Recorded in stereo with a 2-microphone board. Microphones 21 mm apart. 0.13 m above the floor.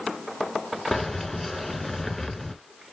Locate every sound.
0.9 s keys jangling: 10° left (ahead or behind), 1.1 m